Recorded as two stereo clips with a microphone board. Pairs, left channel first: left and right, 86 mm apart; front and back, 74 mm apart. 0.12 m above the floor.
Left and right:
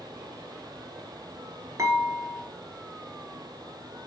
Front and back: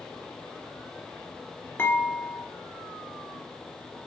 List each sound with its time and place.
1.8 s dishes clattering: 50° right, 1.1 m